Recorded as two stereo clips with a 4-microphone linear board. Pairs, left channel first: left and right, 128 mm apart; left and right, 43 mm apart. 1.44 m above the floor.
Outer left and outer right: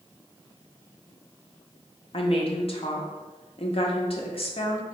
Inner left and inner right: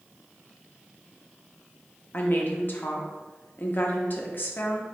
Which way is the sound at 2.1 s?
45° left (ahead or behind).